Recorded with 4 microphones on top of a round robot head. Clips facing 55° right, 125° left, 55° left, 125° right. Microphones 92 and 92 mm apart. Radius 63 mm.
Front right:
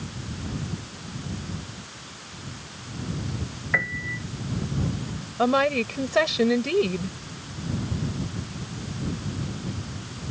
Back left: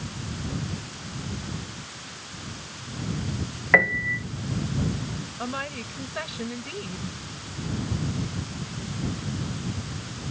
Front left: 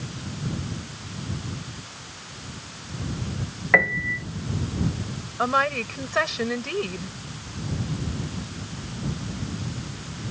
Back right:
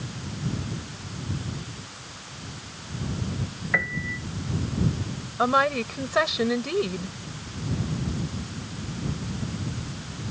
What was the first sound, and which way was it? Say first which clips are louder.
A piano: back left 7 dB, front left 7 dB; 90° left.